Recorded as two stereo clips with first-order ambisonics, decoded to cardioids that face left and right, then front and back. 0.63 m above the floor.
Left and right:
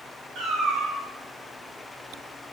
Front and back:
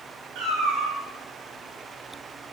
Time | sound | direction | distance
0.3 | a cat meowing | 145° right | 0.7 m